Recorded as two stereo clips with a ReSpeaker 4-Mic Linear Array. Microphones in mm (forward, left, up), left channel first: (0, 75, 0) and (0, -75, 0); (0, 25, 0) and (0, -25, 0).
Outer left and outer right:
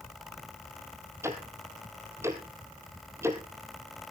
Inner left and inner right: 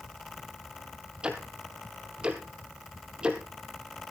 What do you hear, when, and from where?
1.2 s ticking: 20° right (ahead or behind), 2.5 m